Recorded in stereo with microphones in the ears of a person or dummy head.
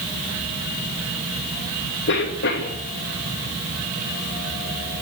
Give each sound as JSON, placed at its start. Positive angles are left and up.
{"t": 2.1, "sound": "a cough", "side_deg": 55, "distance_m": 3.0}